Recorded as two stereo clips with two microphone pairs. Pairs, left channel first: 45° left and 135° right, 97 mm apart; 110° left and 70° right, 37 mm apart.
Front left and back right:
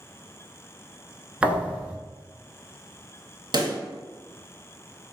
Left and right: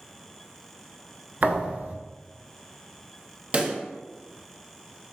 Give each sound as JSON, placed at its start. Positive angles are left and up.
{"t": 1.4, "sound": "a thud", "azimuth_deg": -60, "distance_m": 0.7}
{"t": 3.5, "sound": "a pop", "azimuth_deg": -115, "distance_m": 0.9}